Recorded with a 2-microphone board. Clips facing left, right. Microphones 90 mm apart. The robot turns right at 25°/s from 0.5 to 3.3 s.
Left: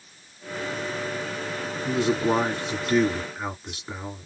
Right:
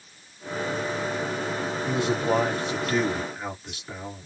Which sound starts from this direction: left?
A man speaking, at 1.9 s.